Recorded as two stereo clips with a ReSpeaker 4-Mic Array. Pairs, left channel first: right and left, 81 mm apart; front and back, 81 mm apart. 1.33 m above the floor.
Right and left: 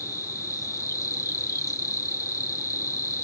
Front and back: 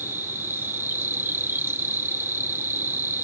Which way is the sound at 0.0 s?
125° right.